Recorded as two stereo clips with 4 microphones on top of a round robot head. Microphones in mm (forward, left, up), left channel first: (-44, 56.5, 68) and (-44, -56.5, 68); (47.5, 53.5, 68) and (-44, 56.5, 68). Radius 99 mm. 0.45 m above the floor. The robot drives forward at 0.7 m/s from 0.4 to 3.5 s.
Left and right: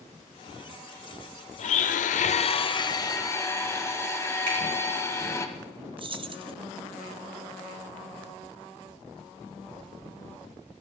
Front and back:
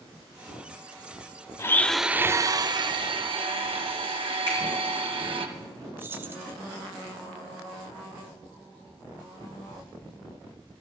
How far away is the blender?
About 0.6 m.